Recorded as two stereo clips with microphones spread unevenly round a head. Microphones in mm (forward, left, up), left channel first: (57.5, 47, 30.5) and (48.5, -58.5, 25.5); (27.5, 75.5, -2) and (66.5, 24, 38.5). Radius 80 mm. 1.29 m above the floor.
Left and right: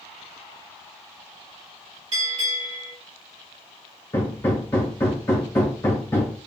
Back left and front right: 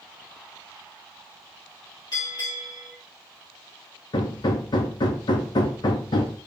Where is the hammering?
120° left, 0.7 m.